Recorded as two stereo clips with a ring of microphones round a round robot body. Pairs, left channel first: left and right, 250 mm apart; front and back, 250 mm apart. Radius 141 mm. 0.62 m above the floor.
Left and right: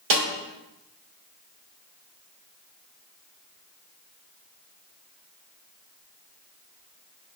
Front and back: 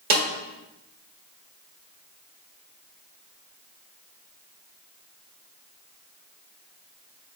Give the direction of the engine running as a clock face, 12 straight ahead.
I don't hear an engine running.